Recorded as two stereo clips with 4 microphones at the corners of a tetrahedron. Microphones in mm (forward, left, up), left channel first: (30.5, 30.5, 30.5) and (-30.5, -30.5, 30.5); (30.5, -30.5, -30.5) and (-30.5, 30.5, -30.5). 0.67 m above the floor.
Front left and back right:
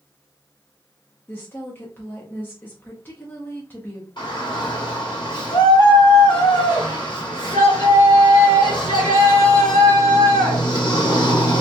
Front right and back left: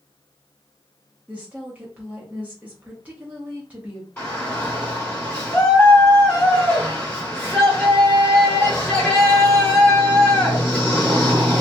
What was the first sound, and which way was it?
A woman speaking, 85° left.